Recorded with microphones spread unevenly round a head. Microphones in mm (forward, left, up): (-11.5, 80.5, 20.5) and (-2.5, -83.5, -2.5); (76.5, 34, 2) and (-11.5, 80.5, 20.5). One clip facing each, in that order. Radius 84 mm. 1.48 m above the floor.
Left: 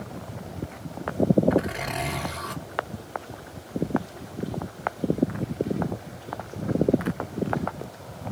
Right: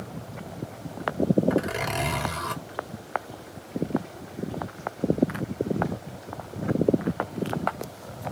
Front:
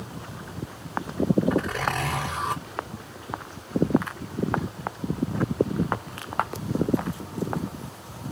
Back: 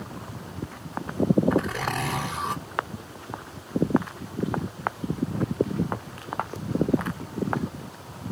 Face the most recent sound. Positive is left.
turn(degrees=-120)